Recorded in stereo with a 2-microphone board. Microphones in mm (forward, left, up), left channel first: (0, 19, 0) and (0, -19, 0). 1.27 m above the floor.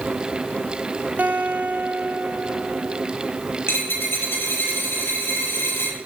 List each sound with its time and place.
1.2 s a guitar: 45° right (ahead or behind), 1.4 m
3.7 s a dropped coin: 80° left, 6 m